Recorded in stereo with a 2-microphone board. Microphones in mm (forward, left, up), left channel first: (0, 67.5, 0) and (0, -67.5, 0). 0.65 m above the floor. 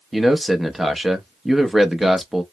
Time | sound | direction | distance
0.1 | a man speaking | centre (ahead or behind) | 0.6 m